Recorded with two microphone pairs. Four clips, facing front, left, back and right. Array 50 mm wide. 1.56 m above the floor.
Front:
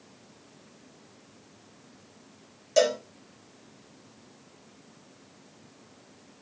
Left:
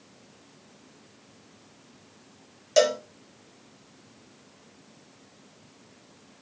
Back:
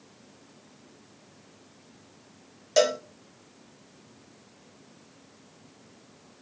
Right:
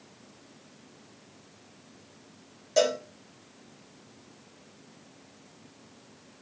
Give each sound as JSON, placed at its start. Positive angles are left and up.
{"t": 2.8, "sound": "a cowbell", "azimuth_deg": 130, "distance_m": 0.8}